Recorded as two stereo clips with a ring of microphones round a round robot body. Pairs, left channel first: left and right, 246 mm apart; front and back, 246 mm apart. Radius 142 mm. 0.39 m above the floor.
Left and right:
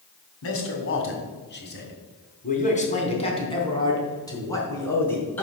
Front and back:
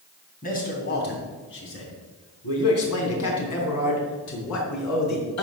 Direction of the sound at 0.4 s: 60° left.